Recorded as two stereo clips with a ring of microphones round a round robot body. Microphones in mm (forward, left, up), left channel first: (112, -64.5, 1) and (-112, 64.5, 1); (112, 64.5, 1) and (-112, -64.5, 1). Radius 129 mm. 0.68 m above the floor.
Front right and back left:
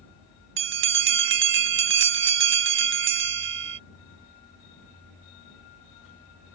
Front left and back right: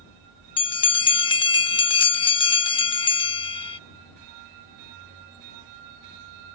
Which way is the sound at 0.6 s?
105° left.